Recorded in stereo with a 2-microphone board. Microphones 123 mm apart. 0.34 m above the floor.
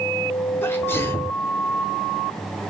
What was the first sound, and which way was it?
A sneeze, 20° left (ahead or behind).